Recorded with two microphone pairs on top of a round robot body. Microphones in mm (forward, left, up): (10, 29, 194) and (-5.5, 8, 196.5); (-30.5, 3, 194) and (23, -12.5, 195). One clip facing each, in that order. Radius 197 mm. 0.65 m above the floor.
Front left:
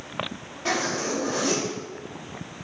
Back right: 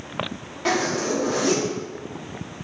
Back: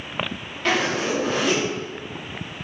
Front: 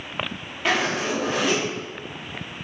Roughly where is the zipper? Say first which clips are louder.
Back right 3 dB, back 1 dB; right.